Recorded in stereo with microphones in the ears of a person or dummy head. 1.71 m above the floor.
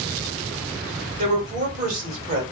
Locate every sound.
1.2 s a woman speaking: 50° right (ahead or behind), 1.5 m